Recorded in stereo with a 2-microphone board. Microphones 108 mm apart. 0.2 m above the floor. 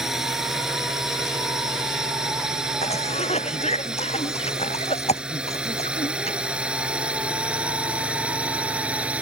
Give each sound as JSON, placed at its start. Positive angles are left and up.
{"t": 0.0, "sound": "a drone", "side_deg": -5}
{"t": 2.8, "sound": "a cough", "side_deg": 85}